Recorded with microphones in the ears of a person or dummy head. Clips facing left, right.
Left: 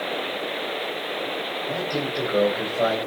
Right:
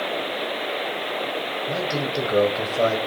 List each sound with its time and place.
1.7 s a man speaking: 25° right (ahead or behind), 8.5 m; by 3.0 s 35° right (ahead or behind), 8.5 m